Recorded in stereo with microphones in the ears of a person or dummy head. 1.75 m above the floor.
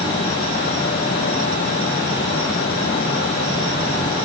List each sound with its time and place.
Only background noise.